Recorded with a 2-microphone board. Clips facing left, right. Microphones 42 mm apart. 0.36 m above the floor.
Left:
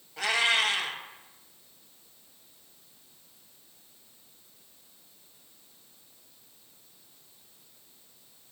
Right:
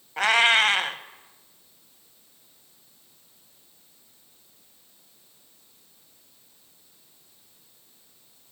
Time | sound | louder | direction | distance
0.2 | a cat meowing | right 6 dB | 50° right (ahead or behind) | 0.5 m